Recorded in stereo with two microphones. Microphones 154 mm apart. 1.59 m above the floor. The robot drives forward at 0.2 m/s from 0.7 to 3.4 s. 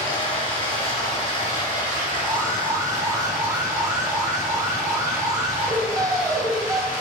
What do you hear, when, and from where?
0.0 s running water: 30° left (ahead or behind), 2 m; by 7.0 s 25° left (ahead or behind), 2.5 m
2.2 s an alarm: 20° right (ahead or behind), 0.7 m; by 6.8 s 25° right (ahead or behind), 0.6 m